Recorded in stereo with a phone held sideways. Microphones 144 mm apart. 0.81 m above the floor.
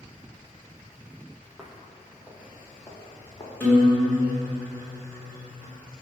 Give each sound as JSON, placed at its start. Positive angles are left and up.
{"t": 1.6, "sound": "footsteps", "side_deg": 0, "distance_m": 1.5}
{"t": 3.6, "sound": "a guitar", "side_deg": 15, "distance_m": 3.0}